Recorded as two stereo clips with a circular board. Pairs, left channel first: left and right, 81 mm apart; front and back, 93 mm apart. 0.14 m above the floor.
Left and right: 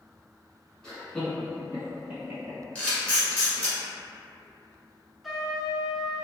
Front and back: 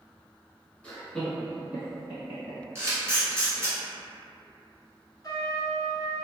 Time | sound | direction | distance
0.8 | laughter | 40° left | 1.1 m
2.8 | a camera shutter | 145° left | 1.3 m
5.2 | a trumpet | straight ahead | 0.6 m